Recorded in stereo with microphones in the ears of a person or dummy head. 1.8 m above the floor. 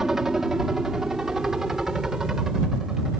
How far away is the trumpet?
I don't hear a trumpet.